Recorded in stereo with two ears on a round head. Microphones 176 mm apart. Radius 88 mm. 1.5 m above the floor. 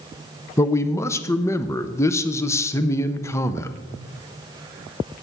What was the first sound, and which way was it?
A man speaking, 15° left (ahead or behind).